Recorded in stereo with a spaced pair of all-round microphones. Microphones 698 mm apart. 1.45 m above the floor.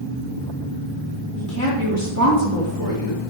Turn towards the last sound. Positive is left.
turn(degrees=-30)  # may be behind; listen again after turning